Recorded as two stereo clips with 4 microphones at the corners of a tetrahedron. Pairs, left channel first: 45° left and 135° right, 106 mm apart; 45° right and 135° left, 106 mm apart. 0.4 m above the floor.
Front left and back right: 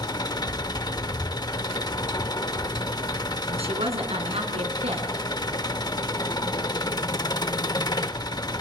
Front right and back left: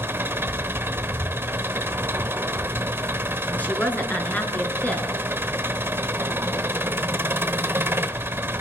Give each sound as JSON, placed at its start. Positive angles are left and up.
{"t": 0.0, "sound": "an engine running", "azimuth_deg": 75, "distance_m": 0.9}
{"t": 3.5, "sound": "a woman speaking", "azimuth_deg": -120, "distance_m": 4.0}